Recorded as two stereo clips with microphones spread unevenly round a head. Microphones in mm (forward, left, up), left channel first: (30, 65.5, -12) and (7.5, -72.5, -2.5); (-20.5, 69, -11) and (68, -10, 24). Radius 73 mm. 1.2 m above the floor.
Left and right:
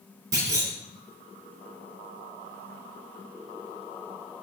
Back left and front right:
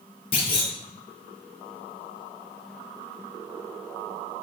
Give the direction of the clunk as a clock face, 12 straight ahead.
5 o'clock.